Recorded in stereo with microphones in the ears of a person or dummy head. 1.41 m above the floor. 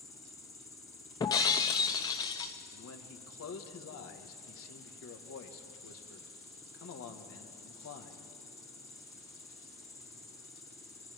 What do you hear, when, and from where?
0.0 s an insect: 15° left (ahead or behind), 1.0 m
1.2 s breaking glass: 20° left (ahead or behind), 0.7 m
2.7 s a man speaking: 75° left (ahead or behind), 1.8 m